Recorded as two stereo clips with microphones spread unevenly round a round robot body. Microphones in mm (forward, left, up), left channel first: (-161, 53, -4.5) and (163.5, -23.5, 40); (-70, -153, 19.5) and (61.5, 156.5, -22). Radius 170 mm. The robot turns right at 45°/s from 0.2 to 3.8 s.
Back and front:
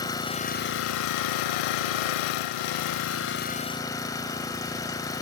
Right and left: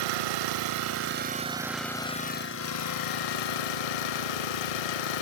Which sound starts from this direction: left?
An engine running, at 0.0 s.